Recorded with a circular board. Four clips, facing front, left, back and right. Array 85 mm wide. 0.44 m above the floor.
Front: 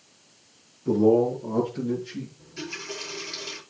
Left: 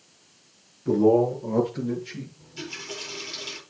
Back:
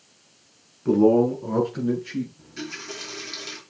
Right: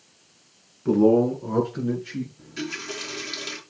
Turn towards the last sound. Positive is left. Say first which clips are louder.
# right 6 dB, back 1 dB
turn(degrees=-115)